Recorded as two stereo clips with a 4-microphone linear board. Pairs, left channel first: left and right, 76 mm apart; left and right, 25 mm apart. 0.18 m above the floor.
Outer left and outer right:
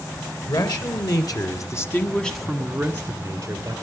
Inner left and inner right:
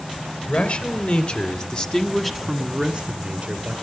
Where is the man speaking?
60° left (ahead or behind), 2.5 m; by 3.7 s 40° right (ahead or behind), 2.5 m.